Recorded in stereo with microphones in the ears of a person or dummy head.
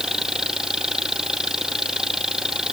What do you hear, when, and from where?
0.0 s an engine running: 5° right (ahead or behind)